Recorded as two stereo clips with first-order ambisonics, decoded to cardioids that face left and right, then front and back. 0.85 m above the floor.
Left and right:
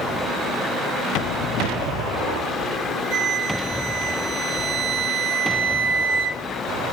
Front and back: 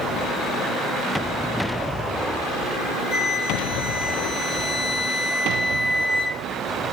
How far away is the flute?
About 2.5 m.